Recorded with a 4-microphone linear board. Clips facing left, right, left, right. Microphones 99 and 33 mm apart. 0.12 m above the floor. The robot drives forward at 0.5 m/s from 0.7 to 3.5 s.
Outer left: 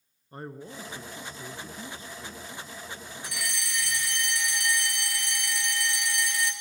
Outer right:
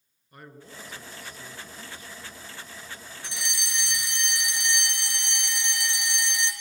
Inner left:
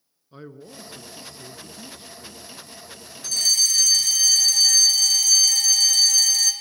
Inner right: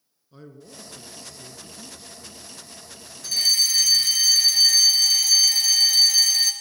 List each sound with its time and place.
0.3 s a man speaking: 30° left (ahead or behind), 1.4 m; by 2.4 s 25° left (ahead or behind), 1.6 m
3.2 s a fire alarm: 25° right (ahead or behind), 3 m